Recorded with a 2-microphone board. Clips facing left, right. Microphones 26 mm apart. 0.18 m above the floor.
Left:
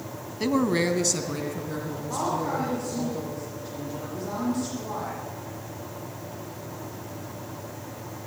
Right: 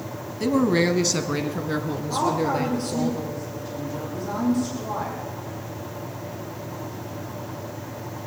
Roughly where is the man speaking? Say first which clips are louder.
Right 3 dB; centre.